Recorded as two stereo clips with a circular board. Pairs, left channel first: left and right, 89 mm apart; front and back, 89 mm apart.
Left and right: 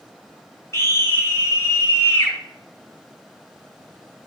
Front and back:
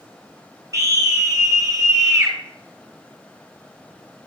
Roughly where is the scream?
Behind left.